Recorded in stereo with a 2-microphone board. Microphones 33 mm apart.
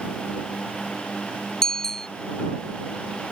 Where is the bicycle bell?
15° left (ahead or behind).